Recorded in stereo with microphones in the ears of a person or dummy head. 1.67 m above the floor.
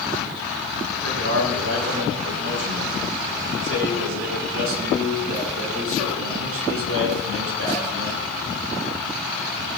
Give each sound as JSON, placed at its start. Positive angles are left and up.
{"t": 0.9, "sound": "a man speaking", "side_deg": -75, "distance_m": 4.0}